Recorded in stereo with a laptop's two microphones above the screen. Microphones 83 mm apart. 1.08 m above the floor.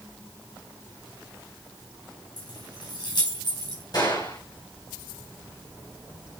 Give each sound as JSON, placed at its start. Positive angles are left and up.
{"t": 2.4, "sound": "keys jangling", "side_deg": 50, "distance_m": 4.5}
{"t": 3.9, "sound": "a gunshot", "side_deg": 50, "distance_m": 8.0}